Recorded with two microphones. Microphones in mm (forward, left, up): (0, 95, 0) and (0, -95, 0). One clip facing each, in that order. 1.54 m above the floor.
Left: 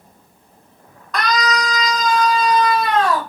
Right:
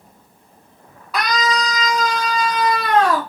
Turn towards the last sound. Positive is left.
turn(degrees=-75)  # may be behind; listen again after turning